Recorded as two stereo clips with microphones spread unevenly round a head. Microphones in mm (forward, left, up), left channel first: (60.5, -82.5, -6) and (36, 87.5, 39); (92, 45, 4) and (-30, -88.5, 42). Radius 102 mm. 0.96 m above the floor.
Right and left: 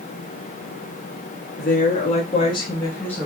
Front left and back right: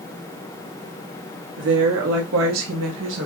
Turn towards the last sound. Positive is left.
turn(degrees=-165)